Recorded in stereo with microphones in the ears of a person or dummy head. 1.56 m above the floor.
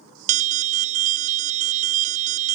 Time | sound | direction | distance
0.3 | an alarm | 40° right (ahead or behind) | ?